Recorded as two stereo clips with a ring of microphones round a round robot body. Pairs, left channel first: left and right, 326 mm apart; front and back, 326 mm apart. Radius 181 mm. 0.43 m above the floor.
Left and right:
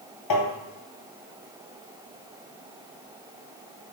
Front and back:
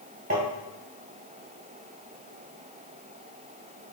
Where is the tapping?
115° left, 1.6 m.